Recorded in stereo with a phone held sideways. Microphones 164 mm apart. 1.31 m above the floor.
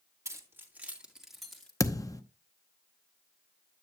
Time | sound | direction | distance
0.2 | keys jangling | 20° right (ahead or behind) | 2 m
1.8 | a thud | 20° left (ahead or behind) | 0.7 m